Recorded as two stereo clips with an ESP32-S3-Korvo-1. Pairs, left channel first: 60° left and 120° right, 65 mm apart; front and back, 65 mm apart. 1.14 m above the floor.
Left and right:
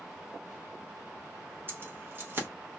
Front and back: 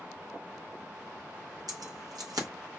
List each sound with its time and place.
1.7 s keys jangling: 175° right, 0.9 m